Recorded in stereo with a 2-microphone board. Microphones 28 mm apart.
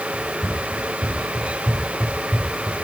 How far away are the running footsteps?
About 7 m.